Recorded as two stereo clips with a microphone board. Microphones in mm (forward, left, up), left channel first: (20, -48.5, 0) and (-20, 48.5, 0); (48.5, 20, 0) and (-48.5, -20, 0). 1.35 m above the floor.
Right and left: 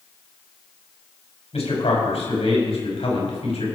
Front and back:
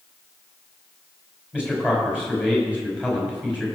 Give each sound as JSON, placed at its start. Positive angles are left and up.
{"t": 1.5, "sound": "a man speaking", "azimuth_deg": -80, "distance_m": 6.0}